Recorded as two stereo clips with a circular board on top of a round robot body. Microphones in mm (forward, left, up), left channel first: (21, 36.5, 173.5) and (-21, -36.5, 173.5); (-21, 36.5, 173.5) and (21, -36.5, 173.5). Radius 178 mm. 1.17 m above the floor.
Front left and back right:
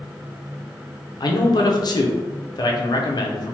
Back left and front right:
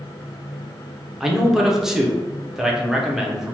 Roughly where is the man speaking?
Ahead left.